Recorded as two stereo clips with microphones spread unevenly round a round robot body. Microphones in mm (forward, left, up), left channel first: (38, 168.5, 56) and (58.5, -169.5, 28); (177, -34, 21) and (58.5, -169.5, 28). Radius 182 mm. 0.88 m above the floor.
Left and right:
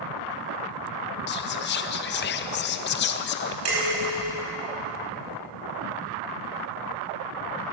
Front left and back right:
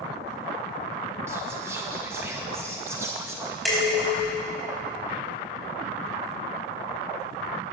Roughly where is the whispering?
Behind left.